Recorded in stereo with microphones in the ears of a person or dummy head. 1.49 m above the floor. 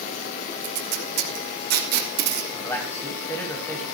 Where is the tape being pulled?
50° right (ahead or behind), 2.5 m.